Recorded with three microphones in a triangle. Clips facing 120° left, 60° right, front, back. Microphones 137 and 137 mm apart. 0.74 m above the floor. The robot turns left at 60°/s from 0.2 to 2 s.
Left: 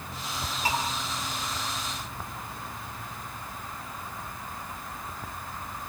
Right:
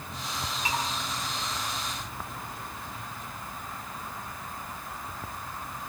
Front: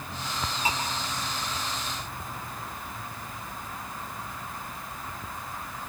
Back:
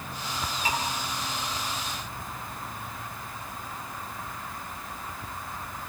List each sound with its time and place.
0.7 s dishes clattering: 65° left, 10 m; by 0.8 s 55° left, 10 m